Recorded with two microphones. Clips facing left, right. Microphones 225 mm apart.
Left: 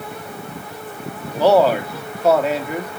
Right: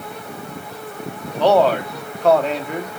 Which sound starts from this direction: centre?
A man speaking, at 1.4 s.